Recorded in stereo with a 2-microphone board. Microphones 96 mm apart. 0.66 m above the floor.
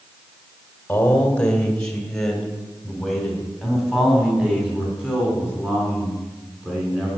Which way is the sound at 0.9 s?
20° left (ahead or behind).